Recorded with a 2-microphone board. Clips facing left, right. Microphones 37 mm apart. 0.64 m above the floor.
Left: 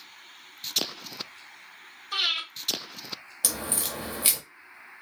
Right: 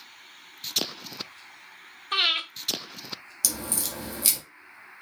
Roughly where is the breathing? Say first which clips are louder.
Right 3 dB; right.